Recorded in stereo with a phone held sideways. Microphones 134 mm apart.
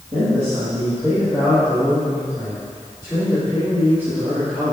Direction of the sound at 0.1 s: 45° right (ahead or behind).